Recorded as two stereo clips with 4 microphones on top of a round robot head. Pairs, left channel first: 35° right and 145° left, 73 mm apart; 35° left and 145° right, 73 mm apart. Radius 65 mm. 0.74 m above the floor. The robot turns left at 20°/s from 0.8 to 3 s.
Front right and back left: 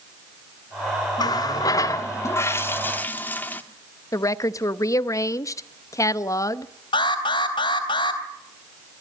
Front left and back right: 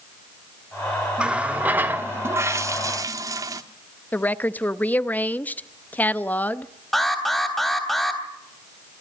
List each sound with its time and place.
1.2 s a running tap: 65° right, 1.3 m; by 3.6 s 105° right, 1.3 m
4.1 s a woman speaking: 25° right, 0.9 m
6.9 s an alarm: 50° right, 3 m